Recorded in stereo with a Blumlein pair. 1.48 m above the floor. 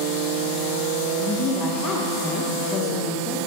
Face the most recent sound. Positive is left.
turn(degrees=25)